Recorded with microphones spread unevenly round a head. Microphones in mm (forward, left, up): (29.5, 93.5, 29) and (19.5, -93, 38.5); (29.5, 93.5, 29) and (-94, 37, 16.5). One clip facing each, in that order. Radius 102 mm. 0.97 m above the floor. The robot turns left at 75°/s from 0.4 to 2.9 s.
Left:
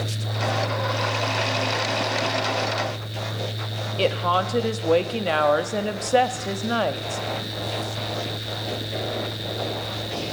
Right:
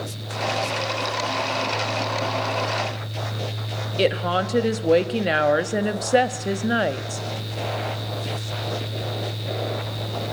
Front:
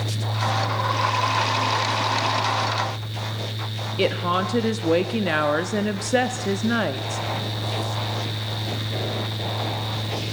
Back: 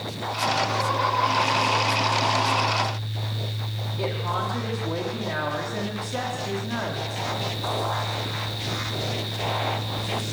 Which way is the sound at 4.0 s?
20° right.